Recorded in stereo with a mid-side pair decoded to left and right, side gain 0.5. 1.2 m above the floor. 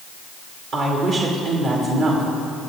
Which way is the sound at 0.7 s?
70° right.